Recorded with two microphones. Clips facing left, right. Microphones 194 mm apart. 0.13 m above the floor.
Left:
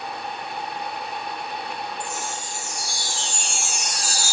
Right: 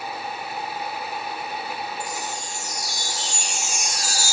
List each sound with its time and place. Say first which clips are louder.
2.0 s a chime: even; 45° right (ahead or behind), 3.5 m